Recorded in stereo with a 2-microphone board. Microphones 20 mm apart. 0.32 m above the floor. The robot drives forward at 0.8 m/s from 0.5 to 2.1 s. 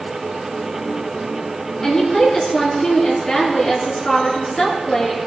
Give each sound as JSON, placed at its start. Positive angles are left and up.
{"t": 1.8, "sound": "a woman speaking", "side_deg": 25, "distance_m": 4.0}